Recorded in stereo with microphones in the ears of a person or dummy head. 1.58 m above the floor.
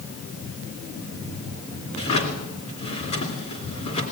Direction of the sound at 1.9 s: 35° left (ahead or behind).